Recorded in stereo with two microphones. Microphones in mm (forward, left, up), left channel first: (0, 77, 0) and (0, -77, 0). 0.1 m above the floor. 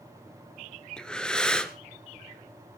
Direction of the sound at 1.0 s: 5° left (ahead or behind).